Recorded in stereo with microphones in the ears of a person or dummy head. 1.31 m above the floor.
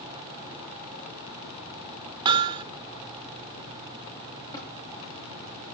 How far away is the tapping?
About 7.5 m.